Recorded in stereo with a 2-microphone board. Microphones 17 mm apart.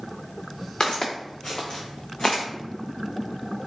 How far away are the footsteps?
About 1.1 m.